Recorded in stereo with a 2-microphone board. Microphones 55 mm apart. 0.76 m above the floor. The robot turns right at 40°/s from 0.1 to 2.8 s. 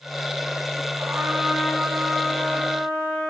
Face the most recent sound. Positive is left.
turn(degrees=25)